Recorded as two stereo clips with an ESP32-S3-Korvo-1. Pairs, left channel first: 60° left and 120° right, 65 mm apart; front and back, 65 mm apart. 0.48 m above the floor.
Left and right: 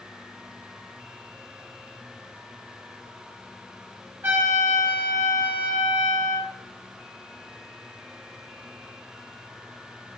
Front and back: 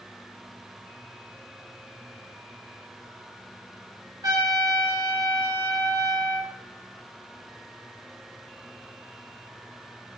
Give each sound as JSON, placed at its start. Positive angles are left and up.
{"t": 4.2, "sound": "a trumpet", "azimuth_deg": 180, "distance_m": 3.0}